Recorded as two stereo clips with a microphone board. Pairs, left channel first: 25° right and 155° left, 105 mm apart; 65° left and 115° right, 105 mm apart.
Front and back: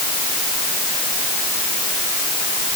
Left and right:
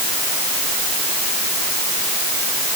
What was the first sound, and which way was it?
Only background noise.